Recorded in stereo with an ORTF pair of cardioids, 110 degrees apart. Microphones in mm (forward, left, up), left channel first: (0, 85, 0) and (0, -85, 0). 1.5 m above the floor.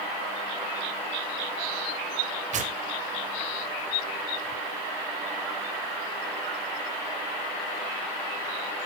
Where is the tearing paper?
50° right, 3 m.